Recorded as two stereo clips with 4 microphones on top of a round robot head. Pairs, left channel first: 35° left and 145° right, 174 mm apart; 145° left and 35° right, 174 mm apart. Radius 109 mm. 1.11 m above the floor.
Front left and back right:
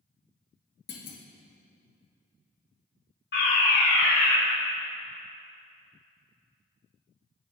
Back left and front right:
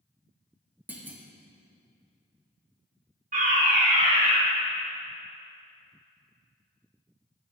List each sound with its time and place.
0.9 s a clunk: 45° left, 2 m
3.3 s a fire alarm: 10° left, 5.5 m